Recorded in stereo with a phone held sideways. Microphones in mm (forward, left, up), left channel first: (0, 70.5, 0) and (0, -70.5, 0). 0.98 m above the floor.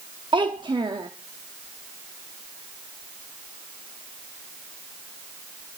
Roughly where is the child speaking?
Right.